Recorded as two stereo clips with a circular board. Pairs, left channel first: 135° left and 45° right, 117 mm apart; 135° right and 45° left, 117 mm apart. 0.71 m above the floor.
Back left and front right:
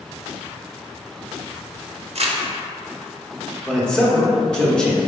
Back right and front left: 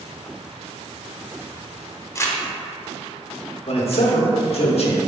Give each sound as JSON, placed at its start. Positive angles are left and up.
{"t": 2.1, "sound": "crumpling", "azimuth_deg": -70, "distance_m": 0.6}
{"t": 3.7, "sound": "a man speaking", "azimuth_deg": -140, "distance_m": 0.9}